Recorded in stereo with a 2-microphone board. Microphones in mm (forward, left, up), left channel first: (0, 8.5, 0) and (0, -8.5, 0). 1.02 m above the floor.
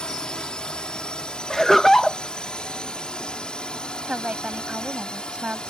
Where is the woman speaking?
80° right.